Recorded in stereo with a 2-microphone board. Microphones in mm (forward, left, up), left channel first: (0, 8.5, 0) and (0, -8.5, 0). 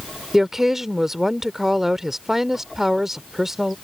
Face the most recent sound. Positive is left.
turn(degrees=-25)  # may be behind; listen again after turning